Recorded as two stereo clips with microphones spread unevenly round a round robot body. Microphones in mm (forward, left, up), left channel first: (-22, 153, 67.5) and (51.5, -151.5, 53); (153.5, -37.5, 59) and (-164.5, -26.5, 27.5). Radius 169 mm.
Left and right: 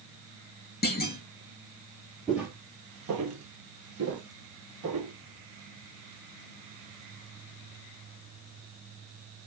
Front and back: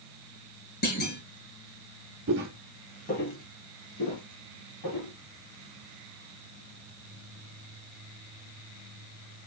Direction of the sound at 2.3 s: 175° right.